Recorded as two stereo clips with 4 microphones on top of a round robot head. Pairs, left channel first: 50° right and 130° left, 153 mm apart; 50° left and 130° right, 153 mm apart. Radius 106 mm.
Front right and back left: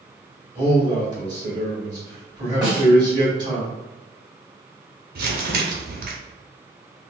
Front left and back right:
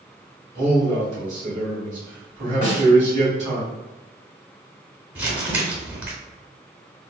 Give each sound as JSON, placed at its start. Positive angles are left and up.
{"t": 0.6, "sound": "a man speaking", "azimuth_deg": -170, "distance_m": 1.7}
{"t": 2.6, "sound": "a snare drum", "azimuth_deg": -150, "distance_m": 1.8}
{"t": 5.2, "sound": "crumpling", "azimuth_deg": 155, "distance_m": 0.9}